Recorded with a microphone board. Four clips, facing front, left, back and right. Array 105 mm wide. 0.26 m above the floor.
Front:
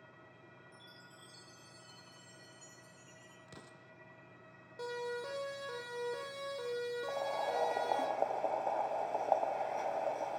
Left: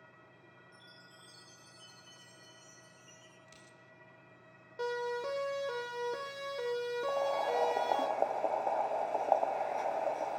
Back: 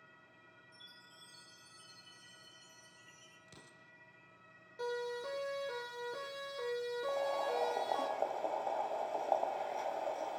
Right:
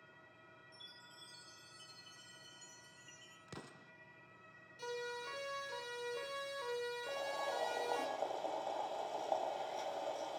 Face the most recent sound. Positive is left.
turn(degrees=75)